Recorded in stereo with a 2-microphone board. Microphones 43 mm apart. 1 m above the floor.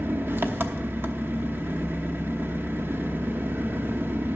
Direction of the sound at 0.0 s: 60° right (ahead or behind).